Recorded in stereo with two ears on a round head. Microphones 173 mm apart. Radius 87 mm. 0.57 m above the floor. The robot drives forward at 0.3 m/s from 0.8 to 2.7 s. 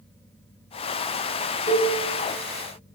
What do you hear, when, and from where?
1.7 s a cowbell: 35° left (ahead or behind), 1.2 m